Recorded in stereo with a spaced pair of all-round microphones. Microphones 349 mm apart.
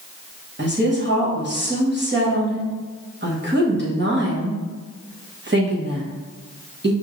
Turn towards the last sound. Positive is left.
turn(degrees=-30)  # may be behind; listen again after turning